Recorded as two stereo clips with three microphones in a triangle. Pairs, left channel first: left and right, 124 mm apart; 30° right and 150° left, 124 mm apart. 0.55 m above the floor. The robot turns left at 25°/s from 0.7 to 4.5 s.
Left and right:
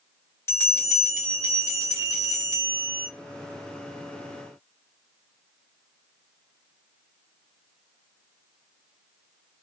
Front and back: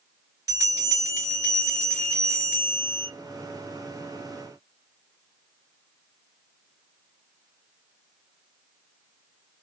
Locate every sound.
0.5 s a bell: 130° left, 1.4 m; by 3.1 s 70° left, 1.4 m